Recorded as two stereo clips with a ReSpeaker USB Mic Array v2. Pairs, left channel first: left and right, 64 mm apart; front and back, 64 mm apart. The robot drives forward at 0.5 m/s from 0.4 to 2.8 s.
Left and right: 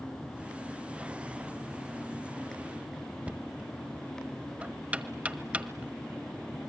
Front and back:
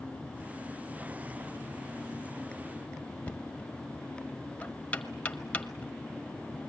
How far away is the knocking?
About 1.1 m.